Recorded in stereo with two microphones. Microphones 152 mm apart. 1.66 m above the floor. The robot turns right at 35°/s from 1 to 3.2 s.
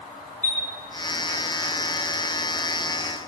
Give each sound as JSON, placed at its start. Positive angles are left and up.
{"t": 0.4, "sound": "a chime", "side_deg": -80, "distance_m": 8.0}